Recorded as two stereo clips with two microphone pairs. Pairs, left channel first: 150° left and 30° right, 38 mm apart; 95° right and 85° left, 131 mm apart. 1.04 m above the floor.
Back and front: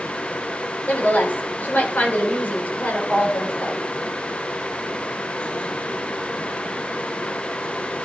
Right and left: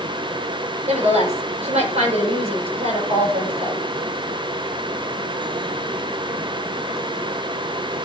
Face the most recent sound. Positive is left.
turn(degrees=110)